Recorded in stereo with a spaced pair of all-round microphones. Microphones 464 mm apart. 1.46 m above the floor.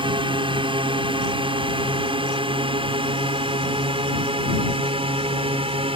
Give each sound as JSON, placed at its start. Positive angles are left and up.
{"t": 0.0, "sound": "a drone", "side_deg": -10}